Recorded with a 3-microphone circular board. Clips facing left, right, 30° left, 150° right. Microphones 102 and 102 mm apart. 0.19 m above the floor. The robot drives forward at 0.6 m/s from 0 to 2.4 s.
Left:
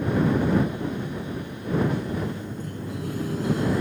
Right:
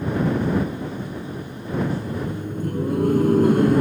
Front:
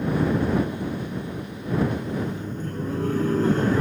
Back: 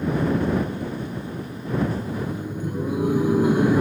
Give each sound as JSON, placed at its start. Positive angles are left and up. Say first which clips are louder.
{"t": 1.9, "sound": "laughter", "louder": "right 1 dB, even", "azimuth_deg": -65}